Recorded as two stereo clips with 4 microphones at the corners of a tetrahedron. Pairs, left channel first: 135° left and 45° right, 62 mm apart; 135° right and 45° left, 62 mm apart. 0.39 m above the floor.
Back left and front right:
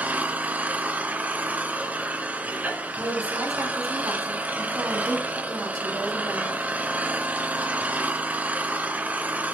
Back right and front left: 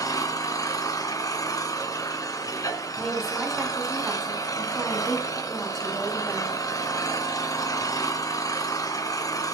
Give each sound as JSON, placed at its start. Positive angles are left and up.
{"t": 0.0, "sound": "an engine running", "azimuth_deg": -110, "distance_m": 2.0}
{"t": 3.0, "sound": "a woman speaking", "azimuth_deg": -50, "distance_m": 6.0}